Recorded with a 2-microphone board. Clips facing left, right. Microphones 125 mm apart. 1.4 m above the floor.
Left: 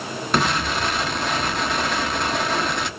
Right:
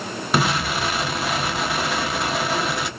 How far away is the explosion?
About 0.9 m.